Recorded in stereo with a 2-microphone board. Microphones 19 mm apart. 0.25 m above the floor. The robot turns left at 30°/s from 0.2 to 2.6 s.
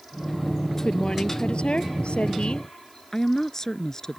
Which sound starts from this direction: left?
A woman speaking, at 3.1 s.